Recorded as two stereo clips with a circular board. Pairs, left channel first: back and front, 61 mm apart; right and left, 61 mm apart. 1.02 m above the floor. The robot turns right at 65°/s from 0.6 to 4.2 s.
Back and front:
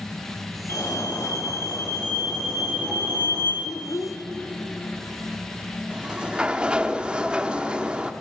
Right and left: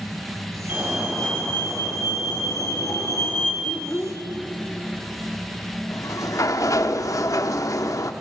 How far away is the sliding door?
About 0.9 m.